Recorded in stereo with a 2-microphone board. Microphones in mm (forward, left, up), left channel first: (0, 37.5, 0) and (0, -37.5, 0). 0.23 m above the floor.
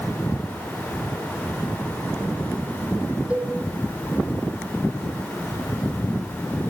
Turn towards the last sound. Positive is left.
turn(degrees=-10)  # may be behind; listen again after turning